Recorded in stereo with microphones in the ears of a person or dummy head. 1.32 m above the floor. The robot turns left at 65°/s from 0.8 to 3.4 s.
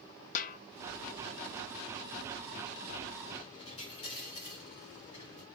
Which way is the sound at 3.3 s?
25° left (ahead or behind).